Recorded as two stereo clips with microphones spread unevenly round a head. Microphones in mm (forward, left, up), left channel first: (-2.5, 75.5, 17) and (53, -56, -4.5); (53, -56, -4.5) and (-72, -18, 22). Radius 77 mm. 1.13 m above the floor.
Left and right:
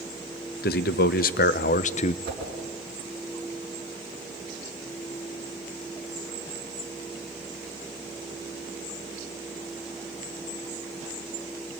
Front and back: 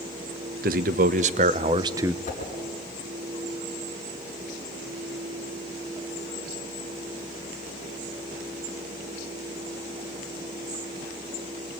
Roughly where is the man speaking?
Behind left.